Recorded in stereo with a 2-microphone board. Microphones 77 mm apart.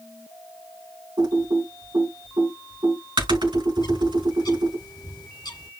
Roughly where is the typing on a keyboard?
Right.